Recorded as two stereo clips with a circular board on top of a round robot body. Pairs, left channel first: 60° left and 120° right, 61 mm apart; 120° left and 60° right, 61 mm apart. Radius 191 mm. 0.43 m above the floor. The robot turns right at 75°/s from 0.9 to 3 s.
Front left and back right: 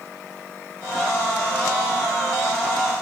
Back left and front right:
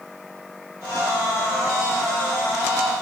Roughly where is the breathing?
No breathing in this recording.